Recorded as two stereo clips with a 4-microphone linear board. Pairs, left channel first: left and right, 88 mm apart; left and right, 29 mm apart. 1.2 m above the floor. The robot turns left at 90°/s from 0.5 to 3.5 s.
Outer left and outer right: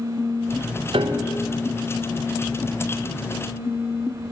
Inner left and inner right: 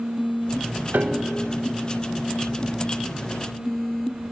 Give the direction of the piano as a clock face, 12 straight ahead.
3 o'clock.